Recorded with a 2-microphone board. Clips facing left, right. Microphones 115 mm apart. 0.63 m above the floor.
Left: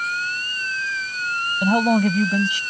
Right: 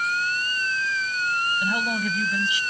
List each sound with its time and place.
1.6 s a man speaking: 55° left (ahead or behind)